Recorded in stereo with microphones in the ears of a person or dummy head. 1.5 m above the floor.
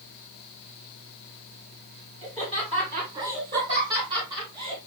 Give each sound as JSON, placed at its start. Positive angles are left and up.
{"t": 2.2, "sound": "laughter", "side_deg": -40, "distance_m": 7.5}